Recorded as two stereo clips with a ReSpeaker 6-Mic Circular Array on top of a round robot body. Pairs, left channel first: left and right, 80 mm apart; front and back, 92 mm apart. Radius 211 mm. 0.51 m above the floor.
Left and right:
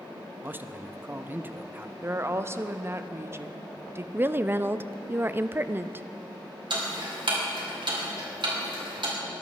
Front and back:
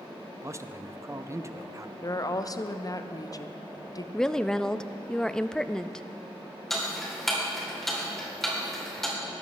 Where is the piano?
No piano in this recording.